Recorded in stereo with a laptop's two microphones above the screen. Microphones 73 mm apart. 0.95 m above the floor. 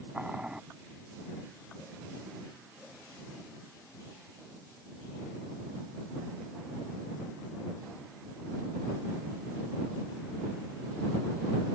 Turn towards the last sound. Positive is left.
turn(degrees=-10)  # may be behind; listen again after turning